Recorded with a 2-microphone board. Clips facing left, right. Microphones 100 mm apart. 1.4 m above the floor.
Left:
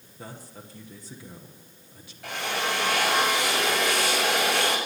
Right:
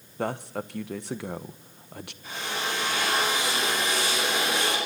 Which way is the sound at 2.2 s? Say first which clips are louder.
Left 3 dB; 75° left (ahead or behind).